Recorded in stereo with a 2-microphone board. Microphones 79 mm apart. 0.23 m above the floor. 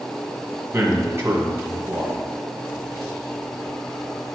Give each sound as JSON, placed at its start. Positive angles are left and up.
{"t": 0.7, "sound": "a man speaking", "side_deg": -30, "distance_m": 1.8}